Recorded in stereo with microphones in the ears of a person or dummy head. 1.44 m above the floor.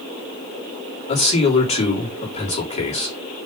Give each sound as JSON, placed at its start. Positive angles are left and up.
{"t": 1.1, "sound": "a man speaking", "side_deg": 40, "distance_m": 3.5}